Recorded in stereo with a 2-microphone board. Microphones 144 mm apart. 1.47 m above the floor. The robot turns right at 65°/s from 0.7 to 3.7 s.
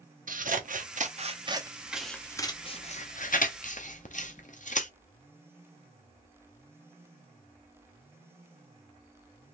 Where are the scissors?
70° right (ahead or behind), 0.6 m; by 4.9 s 60° left (ahead or behind), 0.6 m.